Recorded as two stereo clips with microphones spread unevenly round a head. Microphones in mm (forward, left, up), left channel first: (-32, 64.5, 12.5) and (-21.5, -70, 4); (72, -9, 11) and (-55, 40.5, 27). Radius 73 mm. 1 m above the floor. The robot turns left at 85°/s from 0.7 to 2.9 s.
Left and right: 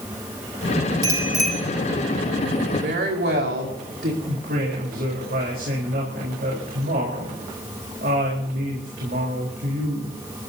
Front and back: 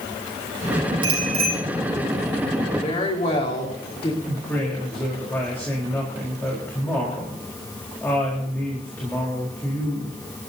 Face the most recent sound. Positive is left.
turn(degrees=-100)